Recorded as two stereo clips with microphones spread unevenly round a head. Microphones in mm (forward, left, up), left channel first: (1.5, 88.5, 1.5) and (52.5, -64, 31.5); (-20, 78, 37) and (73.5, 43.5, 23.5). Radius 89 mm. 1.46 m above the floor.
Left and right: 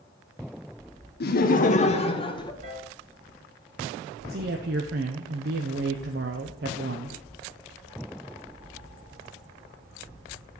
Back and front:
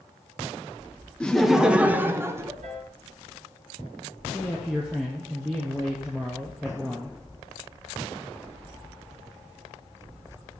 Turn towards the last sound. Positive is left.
turn(degrees=-110)